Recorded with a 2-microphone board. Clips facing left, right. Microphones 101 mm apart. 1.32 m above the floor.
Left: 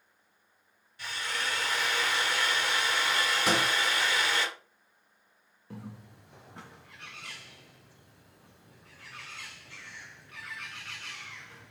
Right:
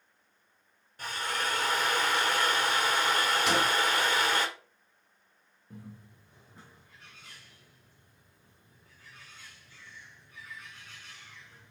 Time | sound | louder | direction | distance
1.0 | a drill | right 3 dB | 45° right (ahead or behind) | 1.5 m
3.5 | a sliding door | left 1 dB | 40° left (ahead or behind) | 3 m
5.7 | a bird | left 4 dB | 75° left (ahead or behind) | 0.6 m